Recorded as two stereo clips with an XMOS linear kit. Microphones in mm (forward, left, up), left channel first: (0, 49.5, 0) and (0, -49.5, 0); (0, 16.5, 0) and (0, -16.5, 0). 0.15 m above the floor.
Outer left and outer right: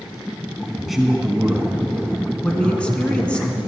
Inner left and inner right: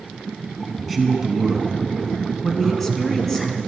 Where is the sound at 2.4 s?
10° left (ahead or behind), 1.3 m.